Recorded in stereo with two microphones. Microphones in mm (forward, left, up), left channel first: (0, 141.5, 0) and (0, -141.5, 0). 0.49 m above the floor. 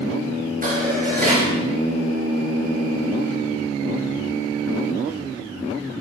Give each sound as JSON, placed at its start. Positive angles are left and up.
{"t": 0.6, "sound": "dishes clattering", "side_deg": -30, "distance_m": 5.0}